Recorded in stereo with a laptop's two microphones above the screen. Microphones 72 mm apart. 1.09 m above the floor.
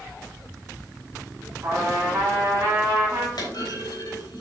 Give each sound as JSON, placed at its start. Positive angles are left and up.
{"t": 1.6, "sound": "a trumpet", "side_deg": -30, "distance_m": 3.0}
{"t": 3.4, "sound": "a clunk", "side_deg": 70, "distance_m": 3.0}